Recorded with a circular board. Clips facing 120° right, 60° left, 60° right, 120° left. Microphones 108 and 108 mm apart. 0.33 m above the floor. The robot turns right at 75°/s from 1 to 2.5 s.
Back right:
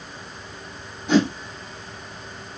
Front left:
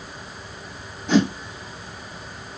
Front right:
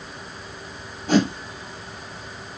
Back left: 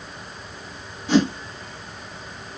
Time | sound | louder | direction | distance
1.1 | a whoosh | even, back left 1 dB | 30° right | 2.0 m